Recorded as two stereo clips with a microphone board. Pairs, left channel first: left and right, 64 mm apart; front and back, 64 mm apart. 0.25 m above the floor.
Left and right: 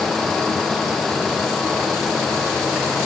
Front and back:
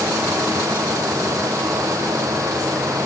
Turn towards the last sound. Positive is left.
No sound to turn to.